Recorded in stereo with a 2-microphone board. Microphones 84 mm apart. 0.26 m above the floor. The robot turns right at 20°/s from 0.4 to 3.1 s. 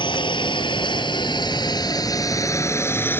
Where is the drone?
75° left (ahead or behind); by 3.2 s 25° left (ahead or behind).